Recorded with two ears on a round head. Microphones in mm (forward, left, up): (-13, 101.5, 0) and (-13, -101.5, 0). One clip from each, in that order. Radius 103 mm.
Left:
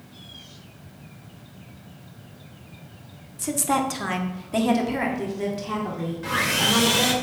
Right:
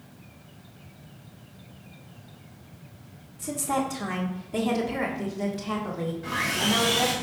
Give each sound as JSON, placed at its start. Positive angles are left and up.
{"t": 3.4, "sound": "a woman speaking", "side_deg": 45, "distance_m": 1.5}
{"t": 6.2, "sound": "sawing", "side_deg": 45, "distance_m": 2.5}